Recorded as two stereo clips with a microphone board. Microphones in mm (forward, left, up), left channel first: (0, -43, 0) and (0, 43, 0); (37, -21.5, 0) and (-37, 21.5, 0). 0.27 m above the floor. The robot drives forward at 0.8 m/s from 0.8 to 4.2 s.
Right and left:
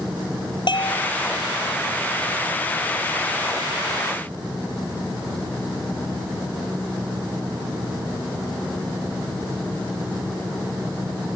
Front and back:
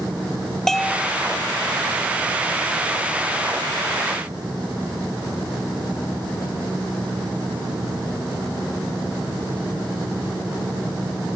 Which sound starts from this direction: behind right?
A bell, at 0.7 s.